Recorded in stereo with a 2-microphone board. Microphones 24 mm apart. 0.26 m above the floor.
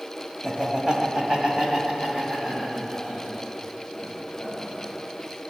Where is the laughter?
25° right (ahead or behind), 1.5 m.